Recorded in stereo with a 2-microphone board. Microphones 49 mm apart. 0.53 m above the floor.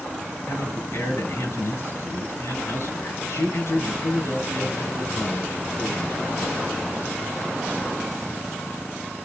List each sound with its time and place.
0.5 s a man speaking: 65° left (ahead or behind), 5 m